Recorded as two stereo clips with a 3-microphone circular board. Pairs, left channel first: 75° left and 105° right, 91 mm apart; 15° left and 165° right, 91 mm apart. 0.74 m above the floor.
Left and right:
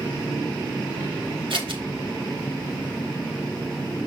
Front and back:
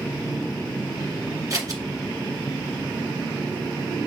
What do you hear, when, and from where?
1.5 s scissors: 120° right, 1.4 m